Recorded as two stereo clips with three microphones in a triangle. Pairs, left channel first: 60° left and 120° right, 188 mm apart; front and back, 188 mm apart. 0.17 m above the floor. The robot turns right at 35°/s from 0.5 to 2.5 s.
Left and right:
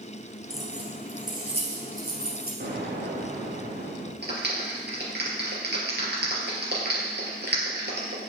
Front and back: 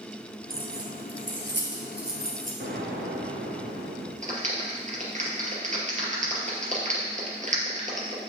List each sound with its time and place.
0.5 s keys jangling: 145° left, 2.5 m; by 2.5 s 145° right, 2.5 m
2.6 s an explosion: 155° right, 4 m
4.2 s a clap: 135° right, 3.5 m